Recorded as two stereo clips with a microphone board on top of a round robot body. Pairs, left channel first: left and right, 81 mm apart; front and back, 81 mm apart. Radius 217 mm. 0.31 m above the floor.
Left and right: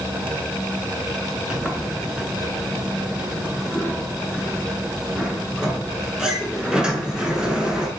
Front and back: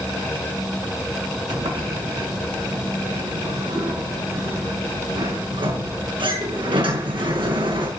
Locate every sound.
1.5 s a sliding door: 170° right, 6 m